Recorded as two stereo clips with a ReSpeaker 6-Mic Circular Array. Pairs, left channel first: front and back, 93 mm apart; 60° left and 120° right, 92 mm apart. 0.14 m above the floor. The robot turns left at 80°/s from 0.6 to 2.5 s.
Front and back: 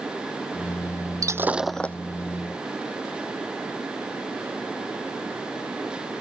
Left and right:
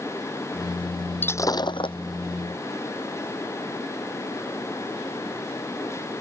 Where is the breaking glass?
125° left; by 2.0 s 70° left.